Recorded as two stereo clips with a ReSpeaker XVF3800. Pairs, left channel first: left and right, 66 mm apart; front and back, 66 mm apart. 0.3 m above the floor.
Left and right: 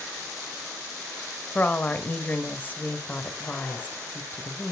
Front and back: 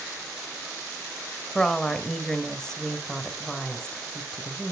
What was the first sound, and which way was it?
A woman speaking, 70° left.